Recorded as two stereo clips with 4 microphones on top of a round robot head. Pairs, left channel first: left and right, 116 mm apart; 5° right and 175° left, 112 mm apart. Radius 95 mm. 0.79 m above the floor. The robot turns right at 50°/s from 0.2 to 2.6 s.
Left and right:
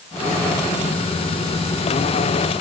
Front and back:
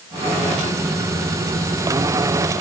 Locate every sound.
Only background noise.